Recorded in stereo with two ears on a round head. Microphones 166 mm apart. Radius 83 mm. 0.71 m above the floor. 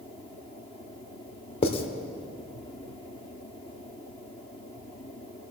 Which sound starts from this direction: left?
Writing, at 1.6 s.